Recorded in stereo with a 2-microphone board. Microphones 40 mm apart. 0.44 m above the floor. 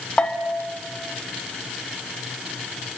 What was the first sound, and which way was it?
A bell, 30° left (ahead or behind).